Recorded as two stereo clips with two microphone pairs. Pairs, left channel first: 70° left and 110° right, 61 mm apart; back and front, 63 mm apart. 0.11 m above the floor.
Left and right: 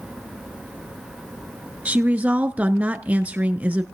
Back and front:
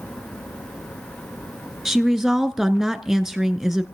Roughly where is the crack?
No crack in this recording.